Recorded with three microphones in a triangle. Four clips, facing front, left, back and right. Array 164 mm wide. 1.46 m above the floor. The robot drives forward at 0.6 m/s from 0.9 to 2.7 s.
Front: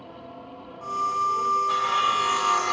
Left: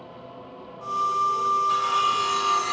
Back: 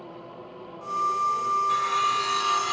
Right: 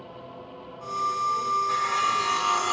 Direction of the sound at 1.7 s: 15° right.